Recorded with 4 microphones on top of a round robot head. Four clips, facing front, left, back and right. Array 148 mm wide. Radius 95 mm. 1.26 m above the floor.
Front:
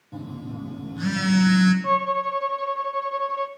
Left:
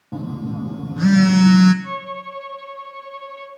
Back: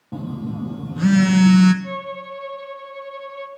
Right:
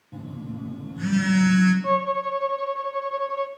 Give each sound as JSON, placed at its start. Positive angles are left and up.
{"t": 0.1, "sound": "a phone buzzing", "azimuth_deg": 130, "distance_m": 1.1}
{"t": 1.8, "sound": "a violin", "azimuth_deg": -50, "distance_m": 1.2}